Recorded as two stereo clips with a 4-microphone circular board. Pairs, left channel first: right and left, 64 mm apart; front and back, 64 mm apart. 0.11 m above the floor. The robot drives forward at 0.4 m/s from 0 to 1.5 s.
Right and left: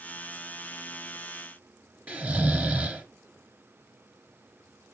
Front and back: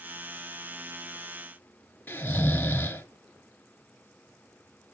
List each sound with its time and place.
2.1 s snoring: 40° left, 0.8 m